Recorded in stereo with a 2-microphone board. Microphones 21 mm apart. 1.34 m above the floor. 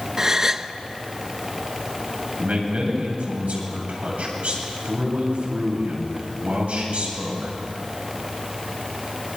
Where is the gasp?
25° right (ahead or behind), 0.8 m.